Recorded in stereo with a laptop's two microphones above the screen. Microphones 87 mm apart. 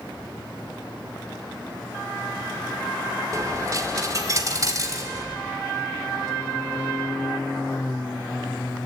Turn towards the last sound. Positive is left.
turn(degrees=-40)  # may be behind; listen again after turning